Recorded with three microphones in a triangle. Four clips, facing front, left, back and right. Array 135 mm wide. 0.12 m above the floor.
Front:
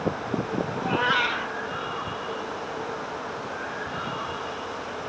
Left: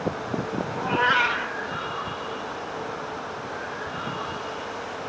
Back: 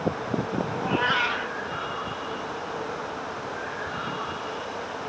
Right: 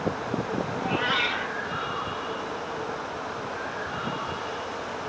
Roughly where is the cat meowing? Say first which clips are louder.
Left 7 dB, front 1 dB; left.